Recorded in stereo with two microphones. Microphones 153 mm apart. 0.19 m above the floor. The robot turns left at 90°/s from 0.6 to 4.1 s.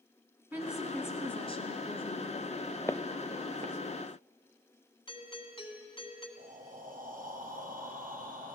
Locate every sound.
0.5 s a woman speaking: 165° right, 2 m; by 2.7 s 10° left, 2 m
2.9 s footsteps: 20° left (ahead or behind), 0.7 m; by 3.8 s 55° right (ahead or behind), 0.7 m
5.1 s a doorbell: 35° left (ahead or behind), 1.9 m
6.4 s breathing: 75° right (ahead or behind), 2.5 m